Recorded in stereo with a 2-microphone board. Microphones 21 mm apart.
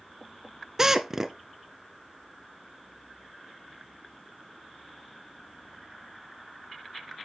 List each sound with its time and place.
0.8 s a drill: 25° right (ahead or behind), 0.5 m